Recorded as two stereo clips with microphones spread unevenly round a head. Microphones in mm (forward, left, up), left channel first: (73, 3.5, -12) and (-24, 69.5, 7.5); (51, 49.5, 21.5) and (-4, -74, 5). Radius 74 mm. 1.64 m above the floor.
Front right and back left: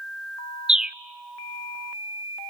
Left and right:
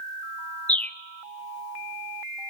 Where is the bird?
100° left, 0.6 m.